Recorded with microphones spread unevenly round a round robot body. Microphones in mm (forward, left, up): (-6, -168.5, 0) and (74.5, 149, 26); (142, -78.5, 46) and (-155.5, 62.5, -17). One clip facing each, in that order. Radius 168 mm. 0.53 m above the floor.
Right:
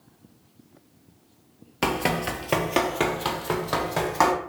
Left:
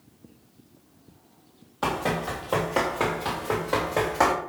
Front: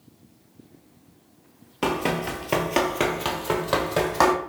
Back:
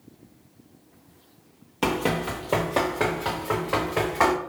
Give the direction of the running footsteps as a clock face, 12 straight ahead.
4 o'clock.